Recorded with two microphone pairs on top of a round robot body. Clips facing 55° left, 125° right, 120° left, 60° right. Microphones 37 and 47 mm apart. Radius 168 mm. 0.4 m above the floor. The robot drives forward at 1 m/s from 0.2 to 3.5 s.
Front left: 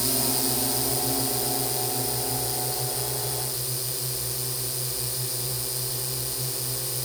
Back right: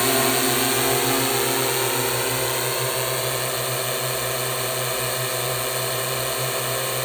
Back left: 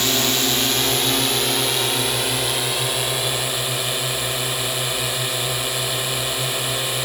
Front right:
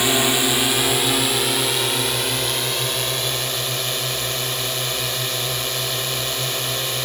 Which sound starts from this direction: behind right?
A drone, at 0.0 s.